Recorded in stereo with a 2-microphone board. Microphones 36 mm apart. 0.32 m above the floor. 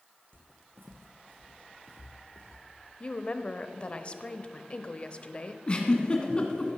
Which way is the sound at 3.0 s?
30° left (ahead or behind).